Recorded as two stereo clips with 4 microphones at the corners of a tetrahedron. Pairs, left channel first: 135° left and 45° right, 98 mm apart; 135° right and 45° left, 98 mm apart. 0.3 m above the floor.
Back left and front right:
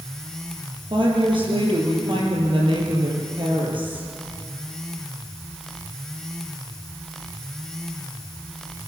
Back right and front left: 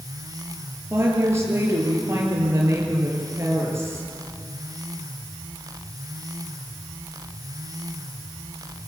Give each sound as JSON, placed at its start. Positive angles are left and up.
{"t": 0.9, "sound": "a woman speaking", "azimuth_deg": -15, "distance_m": 7.0}